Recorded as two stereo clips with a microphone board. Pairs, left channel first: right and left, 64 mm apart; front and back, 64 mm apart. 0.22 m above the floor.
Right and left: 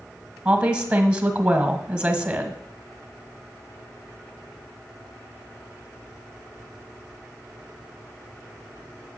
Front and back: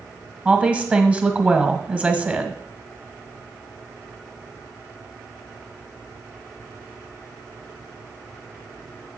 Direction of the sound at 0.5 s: 135° left.